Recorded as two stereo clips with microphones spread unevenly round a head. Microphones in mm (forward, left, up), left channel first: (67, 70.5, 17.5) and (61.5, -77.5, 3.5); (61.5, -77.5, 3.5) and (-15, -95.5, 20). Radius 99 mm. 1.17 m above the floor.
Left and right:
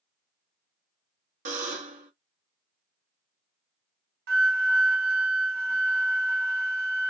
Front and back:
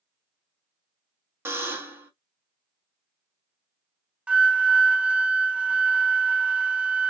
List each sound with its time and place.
1.4 s a buzzer: 130° right, 0.7 m
4.3 s a flute: 100° right, 0.7 m